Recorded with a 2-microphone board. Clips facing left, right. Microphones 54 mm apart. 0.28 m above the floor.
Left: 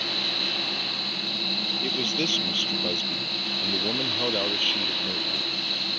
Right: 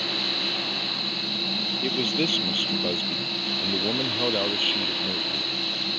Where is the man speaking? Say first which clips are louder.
Right 3 dB; 10° right (ahead or behind); by 5.6 s 5° right (ahead or behind).